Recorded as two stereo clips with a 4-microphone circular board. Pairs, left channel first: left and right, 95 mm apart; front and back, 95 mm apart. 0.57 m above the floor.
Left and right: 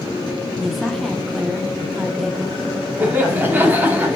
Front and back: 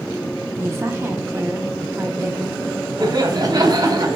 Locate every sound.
0.6 s a woman speaking: straight behind, 0.7 m
3.0 s laughter: 155° right, 0.9 m